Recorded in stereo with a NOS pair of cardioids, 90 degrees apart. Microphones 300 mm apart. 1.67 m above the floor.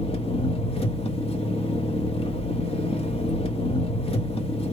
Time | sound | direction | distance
0.0 | an engine running | 20° left | 0.9 m